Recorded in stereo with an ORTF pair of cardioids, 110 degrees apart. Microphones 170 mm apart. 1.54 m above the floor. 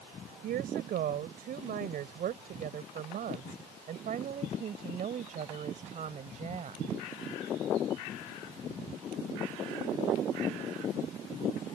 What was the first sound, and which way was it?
A woman speaking, 65° right.